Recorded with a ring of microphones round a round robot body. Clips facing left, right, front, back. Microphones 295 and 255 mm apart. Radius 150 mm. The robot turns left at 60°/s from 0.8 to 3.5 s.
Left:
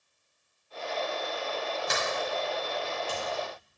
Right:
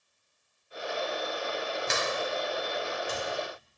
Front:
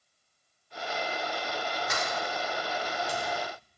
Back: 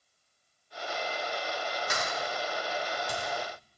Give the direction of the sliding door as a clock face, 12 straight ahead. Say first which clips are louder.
Right 1 dB, front 1 dB; 4 o'clock.